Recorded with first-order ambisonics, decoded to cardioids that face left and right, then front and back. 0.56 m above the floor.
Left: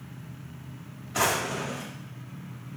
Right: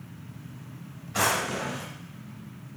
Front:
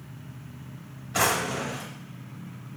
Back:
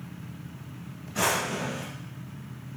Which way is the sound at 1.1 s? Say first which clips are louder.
Even, front 2 dB; 10° right.